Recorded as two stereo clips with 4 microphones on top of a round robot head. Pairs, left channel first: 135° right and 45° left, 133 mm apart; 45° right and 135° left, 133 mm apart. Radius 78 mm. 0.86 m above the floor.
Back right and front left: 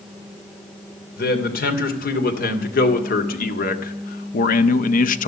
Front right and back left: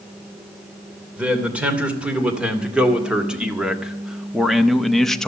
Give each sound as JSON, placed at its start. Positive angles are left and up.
{"t": 1.2, "sound": "a man speaking", "azimuth_deg": -145, "distance_m": 3.0}